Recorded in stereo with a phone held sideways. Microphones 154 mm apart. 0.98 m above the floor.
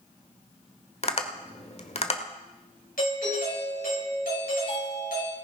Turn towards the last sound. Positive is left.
turn(degrees=75)  # may be behind; listen again after turning